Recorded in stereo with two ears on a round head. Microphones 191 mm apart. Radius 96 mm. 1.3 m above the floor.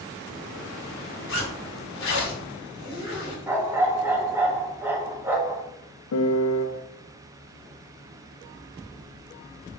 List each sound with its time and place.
1.3 s a zipper: 50° left (ahead or behind), 1.5 m
3.5 s a dog barking: 10° right (ahead or behind), 0.6 m
6.1 s a piano: 70° left (ahead or behind), 0.5 m